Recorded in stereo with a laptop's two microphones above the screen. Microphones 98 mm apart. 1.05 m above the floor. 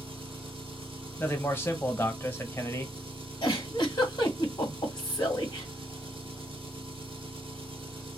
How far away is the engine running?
About 1.2 m.